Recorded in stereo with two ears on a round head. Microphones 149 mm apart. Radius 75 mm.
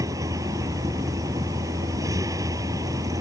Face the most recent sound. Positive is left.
turn(degrees=-20)  # may be behind; listen again after turning